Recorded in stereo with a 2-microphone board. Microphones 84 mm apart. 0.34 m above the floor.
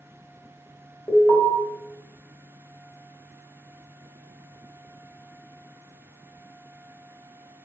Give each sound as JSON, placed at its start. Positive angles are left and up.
{"t": 1.1, "sound": "an alarm", "side_deg": 25, "distance_m": 2.0}